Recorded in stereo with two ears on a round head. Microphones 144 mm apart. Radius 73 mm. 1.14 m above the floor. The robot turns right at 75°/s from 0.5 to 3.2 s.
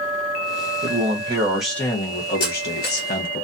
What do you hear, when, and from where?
0.8 s a man speaking: 60° right, 0.8 m; by 3.4 s 115° left, 0.8 m
2.4 s cutlery clinking: 55° left (ahead or behind), 1.1 m; by 3.1 s 60° left (ahead or behind), 1.1 m